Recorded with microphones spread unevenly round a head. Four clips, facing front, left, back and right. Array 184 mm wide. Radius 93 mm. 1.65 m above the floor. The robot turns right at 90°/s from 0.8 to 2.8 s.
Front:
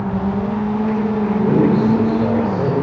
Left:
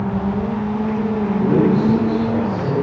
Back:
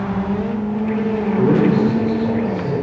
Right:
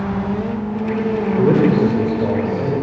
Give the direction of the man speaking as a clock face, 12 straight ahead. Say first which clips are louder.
Right 2 dB, even; 4 o'clock.